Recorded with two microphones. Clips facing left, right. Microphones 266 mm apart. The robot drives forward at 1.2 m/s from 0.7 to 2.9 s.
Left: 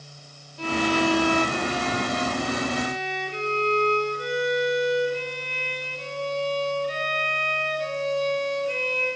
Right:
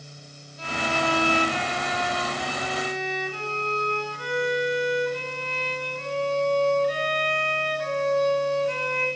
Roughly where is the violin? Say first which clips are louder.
Left 6 dB; left.